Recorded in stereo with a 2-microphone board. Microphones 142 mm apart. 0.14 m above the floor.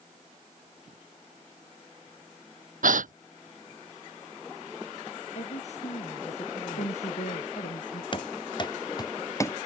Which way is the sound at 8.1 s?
35° left (ahead or behind).